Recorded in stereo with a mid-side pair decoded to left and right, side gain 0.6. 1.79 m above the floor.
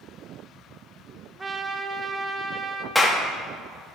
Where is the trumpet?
15° right, 0.7 m.